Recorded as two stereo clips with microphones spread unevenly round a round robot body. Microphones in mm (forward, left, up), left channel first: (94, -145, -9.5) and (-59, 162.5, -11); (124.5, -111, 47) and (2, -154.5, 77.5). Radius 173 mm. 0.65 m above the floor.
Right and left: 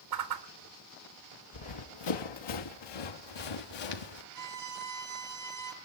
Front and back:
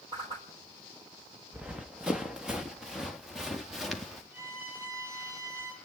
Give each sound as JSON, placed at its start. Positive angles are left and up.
{"t": 0.1, "sound": "a whoosh", "azimuth_deg": 135, "distance_m": 3.0}
{"t": 1.5, "sound": "running footsteps", "azimuth_deg": -80, "distance_m": 3.0}
{"t": 4.3, "sound": "a violin", "azimuth_deg": 165, "distance_m": 3.5}